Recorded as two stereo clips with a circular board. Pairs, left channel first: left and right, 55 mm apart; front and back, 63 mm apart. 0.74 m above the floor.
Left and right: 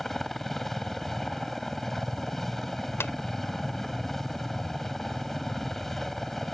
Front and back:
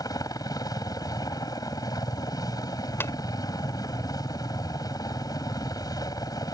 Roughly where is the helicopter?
Ahead.